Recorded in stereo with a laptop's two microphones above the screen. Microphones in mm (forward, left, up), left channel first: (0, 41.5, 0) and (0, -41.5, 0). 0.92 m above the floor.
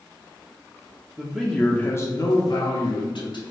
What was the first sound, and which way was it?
A man speaking, 15° right (ahead or behind).